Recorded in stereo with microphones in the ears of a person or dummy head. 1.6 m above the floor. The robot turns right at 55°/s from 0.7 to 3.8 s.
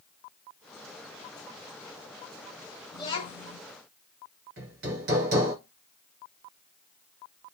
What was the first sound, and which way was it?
A child speaking, 35° left.